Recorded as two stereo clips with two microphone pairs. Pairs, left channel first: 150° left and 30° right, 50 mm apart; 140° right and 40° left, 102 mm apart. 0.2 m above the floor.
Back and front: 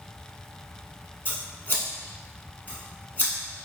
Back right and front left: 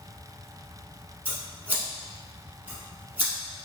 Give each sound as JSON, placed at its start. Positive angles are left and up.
{"t": 1.2, "sound": "scissors", "azimuth_deg": 110, "distance_m": 0.9}